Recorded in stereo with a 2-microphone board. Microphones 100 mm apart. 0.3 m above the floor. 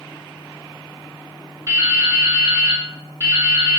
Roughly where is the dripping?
Right.